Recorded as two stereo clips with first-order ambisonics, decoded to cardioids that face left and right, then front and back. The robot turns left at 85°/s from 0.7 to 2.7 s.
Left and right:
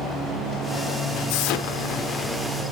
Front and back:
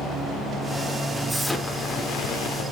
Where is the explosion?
100° left, 1.2 m; by 2.6 s 15° right, 1.2 m.